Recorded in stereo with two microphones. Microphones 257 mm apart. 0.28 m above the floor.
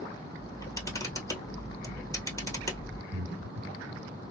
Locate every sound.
0.4 s a camera shutter: 10° left (ahead or behind), 1.5 m
3.1 s breathing: 70° right (ahead or behind), 0.9 m